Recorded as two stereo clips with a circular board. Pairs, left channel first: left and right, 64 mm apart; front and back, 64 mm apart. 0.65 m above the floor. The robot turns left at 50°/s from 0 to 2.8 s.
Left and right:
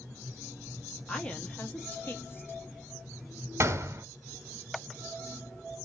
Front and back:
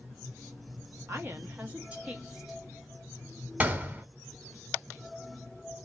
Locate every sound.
1.1 s a woman speaking: 165° left, 0.9 m; by 2.6 s 90° left, 0.9 m
3.6 s a gunshot: 120° right, 0.8 m